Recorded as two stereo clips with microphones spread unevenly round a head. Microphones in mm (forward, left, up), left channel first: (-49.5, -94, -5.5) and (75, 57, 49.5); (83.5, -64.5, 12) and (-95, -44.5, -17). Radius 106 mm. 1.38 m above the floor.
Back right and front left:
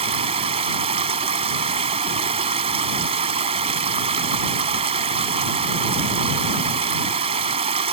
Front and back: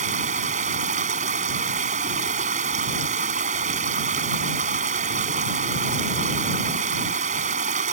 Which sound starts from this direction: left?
Running water, at 0.0 s.